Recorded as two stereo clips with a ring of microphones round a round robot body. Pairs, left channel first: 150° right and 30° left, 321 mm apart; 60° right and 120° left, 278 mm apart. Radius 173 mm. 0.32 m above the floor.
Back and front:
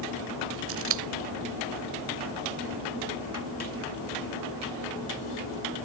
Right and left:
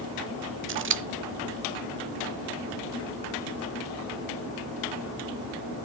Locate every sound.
0.7 s scissors: 75° left, 0.7 m